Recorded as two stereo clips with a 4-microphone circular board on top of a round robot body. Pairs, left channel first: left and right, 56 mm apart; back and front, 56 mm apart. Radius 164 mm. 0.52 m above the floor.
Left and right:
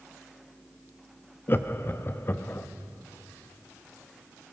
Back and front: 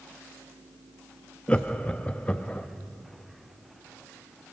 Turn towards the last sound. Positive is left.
turn(degrees=120)